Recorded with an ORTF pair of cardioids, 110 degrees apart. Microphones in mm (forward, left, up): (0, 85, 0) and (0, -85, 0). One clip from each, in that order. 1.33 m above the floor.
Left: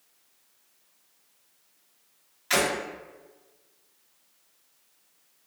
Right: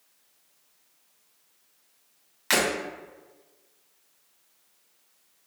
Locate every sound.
2.5 s breaking glass: 65° right, 1.8 m